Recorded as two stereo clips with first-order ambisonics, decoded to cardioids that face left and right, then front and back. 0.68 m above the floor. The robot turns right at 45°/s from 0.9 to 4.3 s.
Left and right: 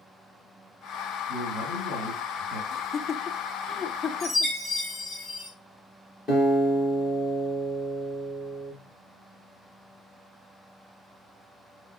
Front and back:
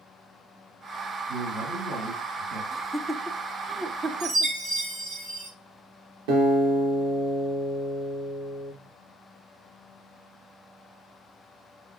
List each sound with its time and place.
1.3 s a man speaking: 75° left, 5 m; by 2.6 s 135° left, 5 m
2.7 s laughter: 85° left, 0.5 m; by 4.5 s 160° left, 0.5 m
4.2 s a chime: 170° right, 4 m; by 5.5 s 165° right, 4 m
6.3 s a guitar: 175° right, 4 m